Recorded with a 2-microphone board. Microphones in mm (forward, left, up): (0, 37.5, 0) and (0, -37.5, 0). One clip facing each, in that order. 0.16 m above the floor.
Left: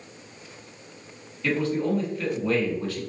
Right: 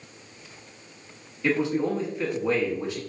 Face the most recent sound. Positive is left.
turn(degrees=-20)  # may be behind; listen again after turning